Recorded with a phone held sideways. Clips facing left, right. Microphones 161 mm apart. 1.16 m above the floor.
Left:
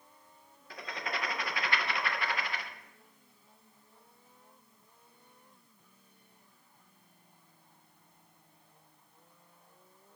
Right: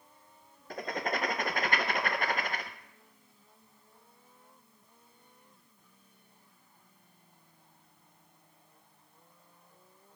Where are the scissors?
I don't hear scissors.